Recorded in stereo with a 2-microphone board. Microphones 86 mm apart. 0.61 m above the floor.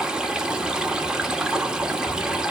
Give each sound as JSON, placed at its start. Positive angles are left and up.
{"t": 0.0, "sound": "running water", "side_deg": -10, "distance_m": 1.2}